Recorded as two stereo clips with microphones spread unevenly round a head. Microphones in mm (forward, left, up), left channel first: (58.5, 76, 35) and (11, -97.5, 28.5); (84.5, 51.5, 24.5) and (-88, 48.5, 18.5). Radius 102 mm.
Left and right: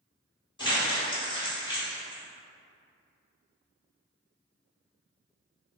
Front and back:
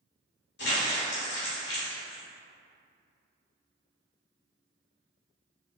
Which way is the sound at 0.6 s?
10° left.